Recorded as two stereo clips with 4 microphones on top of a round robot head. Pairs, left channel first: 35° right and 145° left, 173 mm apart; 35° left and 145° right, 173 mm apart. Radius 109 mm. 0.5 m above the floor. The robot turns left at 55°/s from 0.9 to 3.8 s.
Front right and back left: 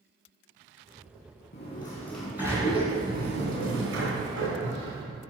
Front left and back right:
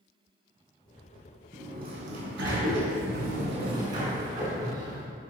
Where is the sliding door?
85° right, 2.5 m; by 5.0 s 150° left, 2.5 m.